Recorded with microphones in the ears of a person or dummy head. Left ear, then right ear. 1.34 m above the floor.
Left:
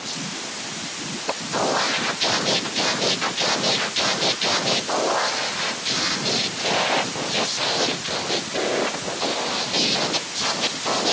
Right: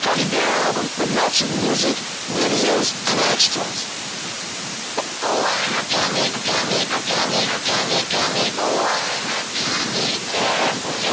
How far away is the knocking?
No knocking in this recording.